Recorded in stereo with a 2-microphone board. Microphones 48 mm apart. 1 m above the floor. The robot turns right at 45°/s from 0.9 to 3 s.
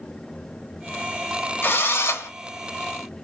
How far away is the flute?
I don't hear a flute.